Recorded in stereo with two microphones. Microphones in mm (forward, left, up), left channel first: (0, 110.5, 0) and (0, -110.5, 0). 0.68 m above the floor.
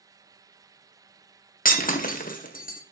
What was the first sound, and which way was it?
Breaking glass, 40° left (ahead or behind).